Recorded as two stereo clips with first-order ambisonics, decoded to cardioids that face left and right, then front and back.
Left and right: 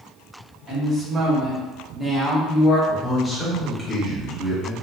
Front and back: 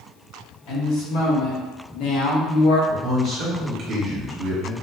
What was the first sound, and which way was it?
A woman speaking, 15° right.